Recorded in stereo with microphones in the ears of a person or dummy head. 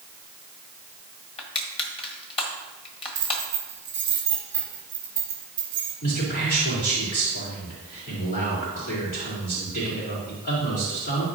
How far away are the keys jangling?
About 1.7 m.